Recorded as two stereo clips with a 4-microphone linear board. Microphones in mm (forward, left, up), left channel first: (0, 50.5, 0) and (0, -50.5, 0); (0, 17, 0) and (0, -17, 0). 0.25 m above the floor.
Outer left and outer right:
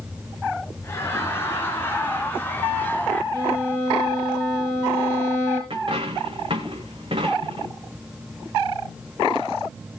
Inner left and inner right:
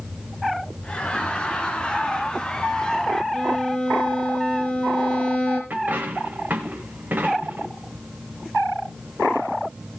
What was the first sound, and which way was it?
Laughter, 25° left (ahead or behind).